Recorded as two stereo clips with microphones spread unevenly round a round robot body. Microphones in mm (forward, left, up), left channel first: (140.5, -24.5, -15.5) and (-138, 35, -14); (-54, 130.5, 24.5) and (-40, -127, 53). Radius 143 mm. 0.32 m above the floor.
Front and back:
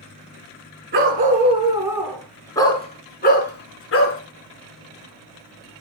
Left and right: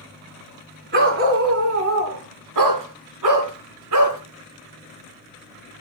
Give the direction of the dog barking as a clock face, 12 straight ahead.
4 o'clock.